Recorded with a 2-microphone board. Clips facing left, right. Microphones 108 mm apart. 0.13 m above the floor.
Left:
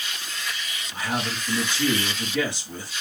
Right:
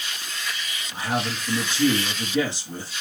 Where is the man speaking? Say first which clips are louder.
Right 2 dB; 25° right (ahead or behind), 2 m.